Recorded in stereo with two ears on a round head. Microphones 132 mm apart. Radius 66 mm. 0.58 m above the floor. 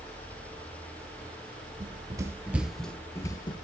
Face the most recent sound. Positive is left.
turn(degrees=35)  # may be behind; listen again after turning